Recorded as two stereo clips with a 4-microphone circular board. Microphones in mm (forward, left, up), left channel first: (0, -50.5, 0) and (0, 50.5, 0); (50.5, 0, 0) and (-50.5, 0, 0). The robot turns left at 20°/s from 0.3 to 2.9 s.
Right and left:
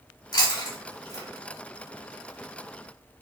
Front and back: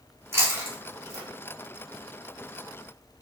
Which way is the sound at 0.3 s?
120° right.